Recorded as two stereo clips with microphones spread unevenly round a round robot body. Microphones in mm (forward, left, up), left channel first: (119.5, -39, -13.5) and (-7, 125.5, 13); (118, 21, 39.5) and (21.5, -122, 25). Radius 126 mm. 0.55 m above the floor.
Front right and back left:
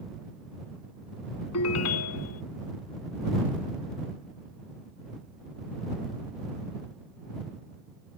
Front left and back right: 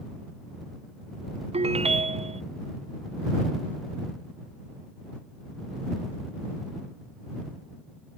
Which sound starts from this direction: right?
A ringtone, at 1.5 s.